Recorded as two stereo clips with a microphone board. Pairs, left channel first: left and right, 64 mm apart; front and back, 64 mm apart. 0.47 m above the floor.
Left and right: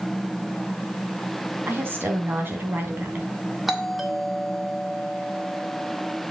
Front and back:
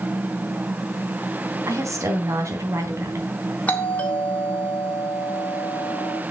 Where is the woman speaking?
145° right, 3 m.